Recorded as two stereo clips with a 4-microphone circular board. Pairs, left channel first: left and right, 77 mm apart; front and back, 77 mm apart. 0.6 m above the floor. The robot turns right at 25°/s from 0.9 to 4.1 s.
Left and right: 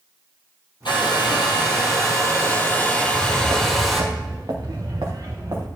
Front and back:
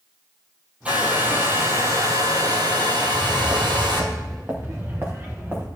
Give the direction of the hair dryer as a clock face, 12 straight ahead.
8 o'clock.